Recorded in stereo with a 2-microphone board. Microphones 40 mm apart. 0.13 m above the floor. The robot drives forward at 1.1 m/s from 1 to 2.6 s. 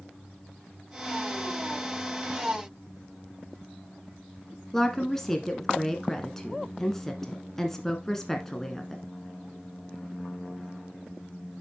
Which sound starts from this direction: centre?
A woman speaking, at 4.7 s.